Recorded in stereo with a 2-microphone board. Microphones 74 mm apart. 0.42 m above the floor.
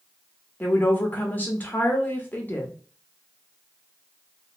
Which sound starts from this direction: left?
A woman speaking, at 0.6 s.